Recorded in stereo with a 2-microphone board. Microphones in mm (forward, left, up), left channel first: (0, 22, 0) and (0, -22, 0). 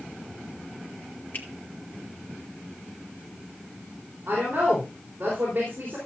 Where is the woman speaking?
50° right (ahead or behind), 4 m.